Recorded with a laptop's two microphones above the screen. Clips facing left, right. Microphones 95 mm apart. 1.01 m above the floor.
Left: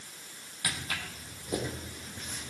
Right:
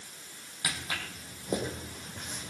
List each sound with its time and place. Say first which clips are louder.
0.6 s footsteps: even; 15° right (ahead or behind), 2.5 m; by 2.5 s 50° right (ahead or behind), 3.5 m